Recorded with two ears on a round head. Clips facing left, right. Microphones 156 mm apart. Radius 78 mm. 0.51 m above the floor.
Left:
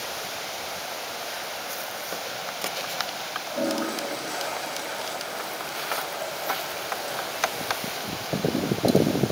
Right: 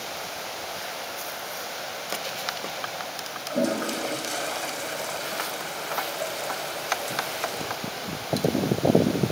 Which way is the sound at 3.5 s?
40° right (ahead or behind).